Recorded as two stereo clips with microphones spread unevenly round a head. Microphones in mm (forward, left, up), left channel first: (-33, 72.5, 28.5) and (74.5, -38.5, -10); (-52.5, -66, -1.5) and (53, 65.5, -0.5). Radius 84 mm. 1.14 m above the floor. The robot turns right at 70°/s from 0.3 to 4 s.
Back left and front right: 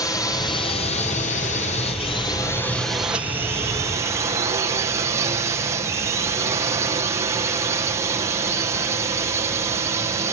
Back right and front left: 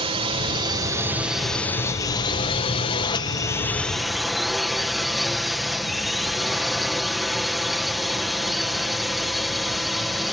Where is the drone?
60° left; by 10.3 s 40° right.